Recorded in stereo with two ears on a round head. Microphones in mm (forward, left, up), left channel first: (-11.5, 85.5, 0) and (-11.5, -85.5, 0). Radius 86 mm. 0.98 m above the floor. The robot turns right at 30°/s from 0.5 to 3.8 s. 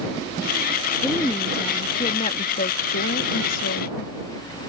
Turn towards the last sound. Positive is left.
turn(degrees=80)